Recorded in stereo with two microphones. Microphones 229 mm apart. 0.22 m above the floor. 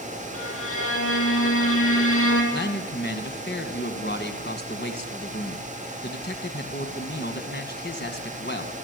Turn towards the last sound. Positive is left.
turn(degrees=50)  # may be behind; listen again after turning